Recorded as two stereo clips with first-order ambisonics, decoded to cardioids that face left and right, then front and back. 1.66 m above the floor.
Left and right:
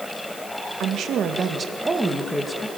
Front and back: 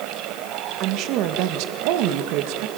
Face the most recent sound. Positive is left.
turn(degrees=165)